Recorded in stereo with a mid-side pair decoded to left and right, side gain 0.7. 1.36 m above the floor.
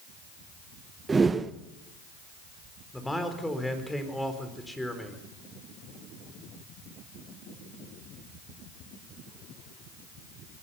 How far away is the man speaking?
About 4 m.